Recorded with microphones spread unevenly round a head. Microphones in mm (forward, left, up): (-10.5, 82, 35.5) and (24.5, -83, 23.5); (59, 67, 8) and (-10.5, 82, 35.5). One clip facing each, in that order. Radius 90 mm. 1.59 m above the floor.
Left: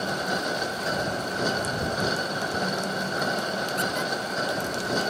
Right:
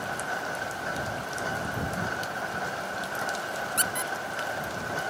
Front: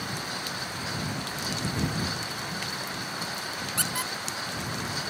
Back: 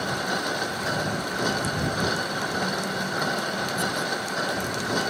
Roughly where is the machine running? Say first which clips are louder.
Left 5 dB, back 8 dB; behind left.